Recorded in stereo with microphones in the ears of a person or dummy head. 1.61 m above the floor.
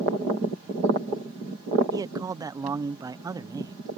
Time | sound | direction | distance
1.9 | a man speaking | 15° right (ahead or behind) | ?